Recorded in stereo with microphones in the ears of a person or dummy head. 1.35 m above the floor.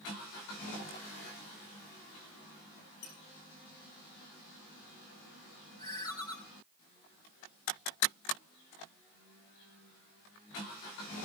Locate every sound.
3.0 s a squeak: 75° left (ahead or behind), 8.5 m
5.8 s a ringtone: 25° left (ahead or behind), 2.5 m